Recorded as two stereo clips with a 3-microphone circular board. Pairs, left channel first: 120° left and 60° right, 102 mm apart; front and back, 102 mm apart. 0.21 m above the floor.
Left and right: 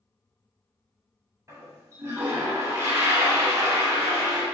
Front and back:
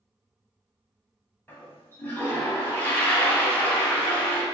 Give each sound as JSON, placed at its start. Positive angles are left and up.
{"t": 1.5, "sound": "a toilet flushing", "azimuth_deg": -45, "distance_m": 0.6}